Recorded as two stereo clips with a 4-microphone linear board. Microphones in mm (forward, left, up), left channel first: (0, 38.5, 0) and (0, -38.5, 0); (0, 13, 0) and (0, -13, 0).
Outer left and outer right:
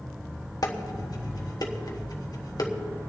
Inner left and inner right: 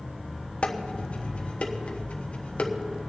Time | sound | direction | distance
0.6 | dishes clattering | 55° left (ahead or behind) | 1.2 m